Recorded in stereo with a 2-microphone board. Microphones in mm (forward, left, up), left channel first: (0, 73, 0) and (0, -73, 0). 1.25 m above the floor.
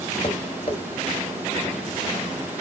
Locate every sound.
0.2 s tapping: 40° left (ahead or behind), 1.3 m